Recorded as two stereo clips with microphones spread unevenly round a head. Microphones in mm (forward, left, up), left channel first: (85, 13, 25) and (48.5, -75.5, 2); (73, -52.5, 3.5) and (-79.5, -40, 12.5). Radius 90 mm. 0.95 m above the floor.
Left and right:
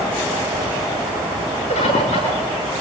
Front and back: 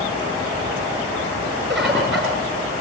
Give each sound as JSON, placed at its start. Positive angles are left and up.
{"t": 1.7, "sound": "a bird", "azimuth_deg": 85, "distance_m": 5.5}